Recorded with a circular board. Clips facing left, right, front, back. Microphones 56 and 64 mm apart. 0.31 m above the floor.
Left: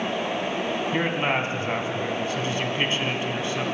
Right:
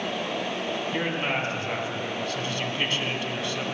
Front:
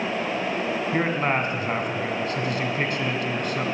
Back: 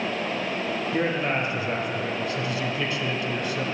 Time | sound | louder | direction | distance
0.9 | a man speaking | left 4 dB, front 1 dB | 25° left | 2.5 m